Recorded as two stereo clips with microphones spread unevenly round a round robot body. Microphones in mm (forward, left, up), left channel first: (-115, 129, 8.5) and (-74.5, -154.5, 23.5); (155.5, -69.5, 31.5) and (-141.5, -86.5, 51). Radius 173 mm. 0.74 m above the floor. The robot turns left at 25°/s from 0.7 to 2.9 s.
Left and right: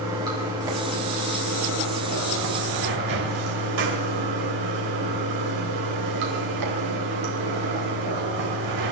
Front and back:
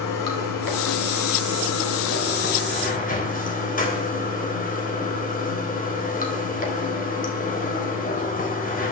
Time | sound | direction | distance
0.0 | running water | 5° right | 4 m